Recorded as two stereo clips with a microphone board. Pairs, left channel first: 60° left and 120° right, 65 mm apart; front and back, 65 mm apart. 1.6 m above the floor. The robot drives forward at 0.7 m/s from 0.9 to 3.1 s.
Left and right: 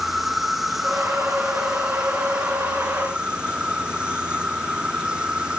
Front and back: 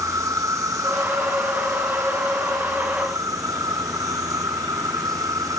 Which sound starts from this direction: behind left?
An insect, at 0.0 s.